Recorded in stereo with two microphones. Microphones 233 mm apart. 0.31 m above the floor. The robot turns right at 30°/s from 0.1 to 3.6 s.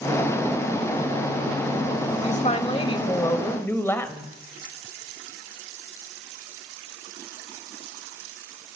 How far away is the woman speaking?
About 1.2 m.